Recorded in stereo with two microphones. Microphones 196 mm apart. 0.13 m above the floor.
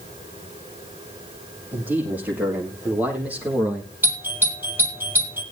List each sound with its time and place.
1.7 s a man speaking: 10° right (ahead or behind), 6.5 m; by 3.9 s 5° right (ahead or behind), 4.5 m
4.0 s a doorbell: 10° right (ahead or behind), 5.5 m